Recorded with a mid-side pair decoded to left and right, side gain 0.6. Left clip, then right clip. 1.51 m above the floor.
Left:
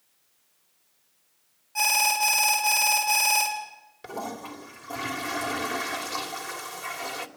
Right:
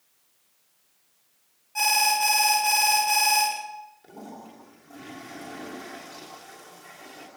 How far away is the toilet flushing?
About 3 m.